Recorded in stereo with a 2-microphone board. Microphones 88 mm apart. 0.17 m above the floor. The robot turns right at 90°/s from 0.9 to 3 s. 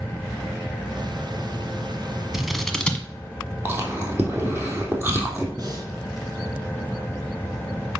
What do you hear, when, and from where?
2.3 s scissors: 5° right (ahead or behind), 1.2 m; by 3.0 s 15° left (ahead or behind), 1.2 m
3.6 s chewing: 25° right (ahead or behind), 3 m
5.6 s breathing: 50° right (ahead or behind), 2 m